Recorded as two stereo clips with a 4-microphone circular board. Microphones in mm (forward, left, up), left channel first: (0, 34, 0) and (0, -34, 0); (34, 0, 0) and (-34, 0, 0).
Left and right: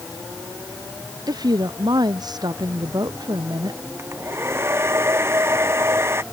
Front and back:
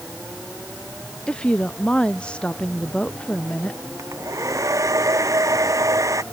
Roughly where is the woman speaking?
Right.